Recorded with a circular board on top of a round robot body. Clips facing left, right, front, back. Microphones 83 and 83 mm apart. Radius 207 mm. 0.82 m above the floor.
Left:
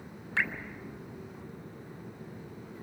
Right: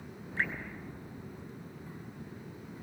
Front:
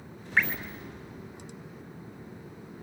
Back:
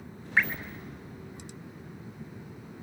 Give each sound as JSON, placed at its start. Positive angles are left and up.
{"t": 0.4, "sound": "dripping", "azimuth_deg": 95, "distance_m": 3.0}